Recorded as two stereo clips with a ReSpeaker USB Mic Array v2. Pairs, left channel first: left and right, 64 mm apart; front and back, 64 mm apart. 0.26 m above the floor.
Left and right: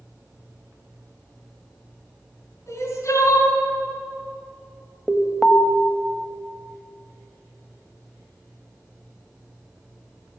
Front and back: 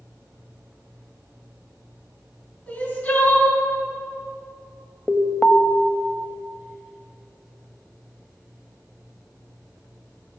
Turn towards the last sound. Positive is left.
turn(degrees=30)